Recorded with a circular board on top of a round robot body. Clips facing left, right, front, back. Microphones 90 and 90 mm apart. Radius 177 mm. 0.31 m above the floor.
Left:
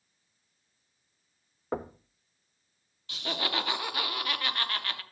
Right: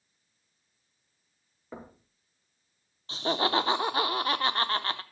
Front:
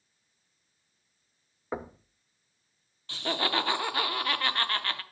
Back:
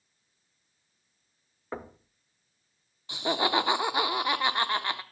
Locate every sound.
1.7 s knocking: 80° left, 0.8 m
3.1 s laughter: 120° right, 1.0 m